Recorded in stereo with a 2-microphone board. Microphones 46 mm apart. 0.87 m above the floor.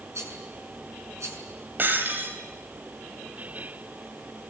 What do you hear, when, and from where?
0.1 s a rattle: 80° right, 6.5 m
1.8 s breaking glass: 40° right (ahead or behind), 3.5 m